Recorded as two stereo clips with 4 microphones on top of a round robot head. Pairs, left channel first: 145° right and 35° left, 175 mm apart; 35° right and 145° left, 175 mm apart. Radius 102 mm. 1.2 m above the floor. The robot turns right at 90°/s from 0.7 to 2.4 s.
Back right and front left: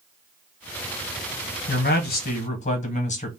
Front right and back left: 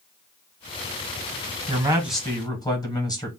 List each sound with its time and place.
1.7 s a man speaking: 165° right, 1.1 m; by 3.3 s 105° right, 1.1 m